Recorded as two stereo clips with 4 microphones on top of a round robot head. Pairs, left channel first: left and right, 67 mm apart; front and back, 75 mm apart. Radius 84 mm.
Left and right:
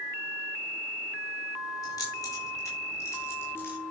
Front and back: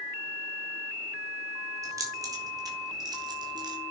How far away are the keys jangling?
About 4 m.